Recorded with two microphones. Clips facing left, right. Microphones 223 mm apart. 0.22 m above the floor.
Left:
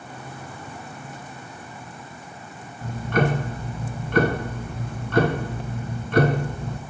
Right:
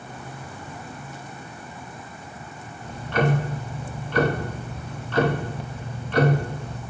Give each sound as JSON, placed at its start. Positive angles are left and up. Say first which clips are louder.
{"t": 2.8, "sound": "ticking", "louder": "left 1 dB", "side_deg": 50, "distance_m": 0.5}